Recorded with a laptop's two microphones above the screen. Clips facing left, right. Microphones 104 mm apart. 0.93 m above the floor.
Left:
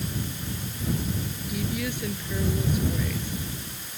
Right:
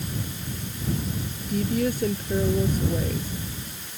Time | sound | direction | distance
1.5 | a woman speaking | 40° right (ahead or behind) | ?